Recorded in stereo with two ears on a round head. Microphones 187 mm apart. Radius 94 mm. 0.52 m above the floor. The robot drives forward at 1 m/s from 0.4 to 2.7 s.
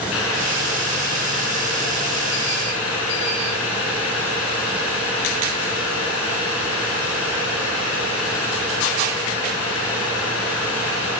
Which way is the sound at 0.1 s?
70° left (ahead or behind).